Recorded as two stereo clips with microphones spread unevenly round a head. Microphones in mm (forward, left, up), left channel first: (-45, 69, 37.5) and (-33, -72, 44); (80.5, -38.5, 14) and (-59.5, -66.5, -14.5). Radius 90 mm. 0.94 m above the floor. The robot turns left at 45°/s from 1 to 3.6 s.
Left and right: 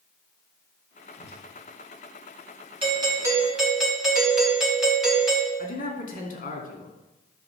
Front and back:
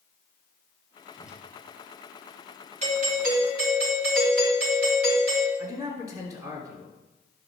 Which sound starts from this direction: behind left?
A man speaking, at 5.6 s.